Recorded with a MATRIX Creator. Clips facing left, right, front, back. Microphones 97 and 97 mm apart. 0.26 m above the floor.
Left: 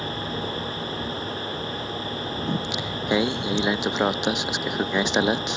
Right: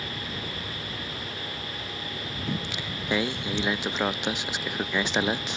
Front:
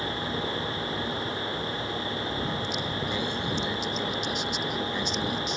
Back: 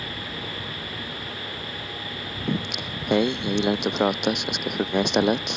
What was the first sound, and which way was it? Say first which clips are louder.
Singing: left 3 dB, back 2 dB; 160° left.